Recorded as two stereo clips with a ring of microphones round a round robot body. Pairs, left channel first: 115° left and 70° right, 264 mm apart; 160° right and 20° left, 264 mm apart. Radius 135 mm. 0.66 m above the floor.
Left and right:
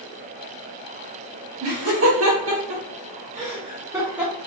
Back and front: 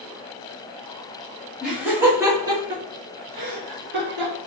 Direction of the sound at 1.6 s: 65° right.